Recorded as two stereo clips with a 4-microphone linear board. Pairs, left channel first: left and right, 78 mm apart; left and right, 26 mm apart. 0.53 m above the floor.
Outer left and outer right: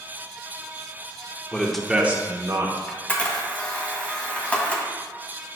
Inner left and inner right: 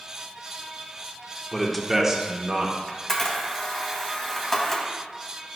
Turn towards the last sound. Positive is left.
turn(degrees=20)  # may be behind; listen again after turning